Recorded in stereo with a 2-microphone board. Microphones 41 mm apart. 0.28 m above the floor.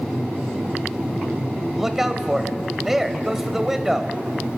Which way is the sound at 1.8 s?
10° right (ahead or behind).